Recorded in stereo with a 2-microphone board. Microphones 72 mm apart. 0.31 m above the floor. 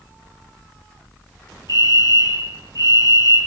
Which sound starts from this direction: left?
A fire alarm, at 1.7 s.